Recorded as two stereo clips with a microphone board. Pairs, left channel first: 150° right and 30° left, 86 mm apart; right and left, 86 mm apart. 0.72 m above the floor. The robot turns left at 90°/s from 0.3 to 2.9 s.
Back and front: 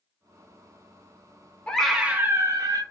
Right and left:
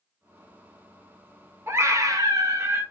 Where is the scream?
140° left, 0.6 m; by 2.8 s 35° left, 0.6 m.